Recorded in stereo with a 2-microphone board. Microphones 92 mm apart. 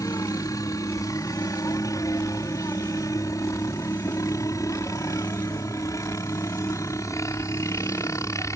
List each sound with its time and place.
0.0 s a helicopter: 40° left (ahead or behind); by 8.6 s 35° left (ahead or behind)